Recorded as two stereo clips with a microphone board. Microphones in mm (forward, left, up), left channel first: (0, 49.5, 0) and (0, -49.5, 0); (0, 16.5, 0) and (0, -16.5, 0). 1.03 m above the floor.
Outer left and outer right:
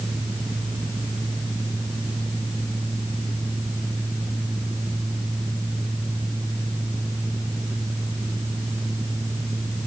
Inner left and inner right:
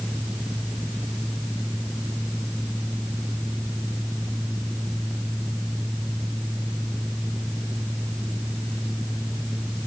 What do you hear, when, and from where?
Only background noise.